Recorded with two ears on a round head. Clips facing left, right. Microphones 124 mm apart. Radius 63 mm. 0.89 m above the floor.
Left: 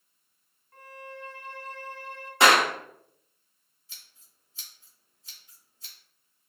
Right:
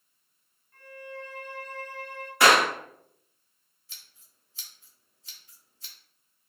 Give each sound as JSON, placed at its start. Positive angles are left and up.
{"t": 0.7, "sound": "a violin", "side_deg": 40, "distance_m": 1.1}
{"t": 2.4, "sound": "a clap", "side_deg": 20, "distance_m": 1.3}
{"t": 3.9, "sound": "scissors", "side_deg": -55, "distance_m": 1.4}